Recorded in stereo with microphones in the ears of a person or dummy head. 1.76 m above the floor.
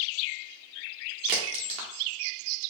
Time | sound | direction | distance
1.3 | a crack | 35° right (ahead or behind) | 1.0 m